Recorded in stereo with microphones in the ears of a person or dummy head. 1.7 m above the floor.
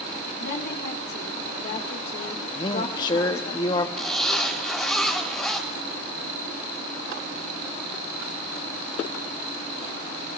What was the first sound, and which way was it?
A woman speaking, 60° left (ahead or behind).